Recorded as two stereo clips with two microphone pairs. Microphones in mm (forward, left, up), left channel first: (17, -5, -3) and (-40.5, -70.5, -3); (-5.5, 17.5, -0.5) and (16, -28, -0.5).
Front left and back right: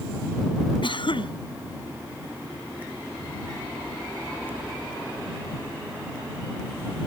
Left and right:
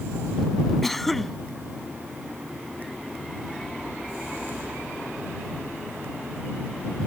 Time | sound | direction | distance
0.8 | a cough | 30° left | ?